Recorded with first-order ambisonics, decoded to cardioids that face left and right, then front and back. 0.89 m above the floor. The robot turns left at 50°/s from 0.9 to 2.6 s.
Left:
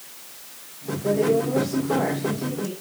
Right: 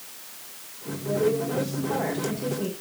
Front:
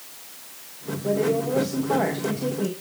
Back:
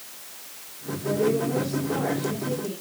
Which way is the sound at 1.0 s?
65° left.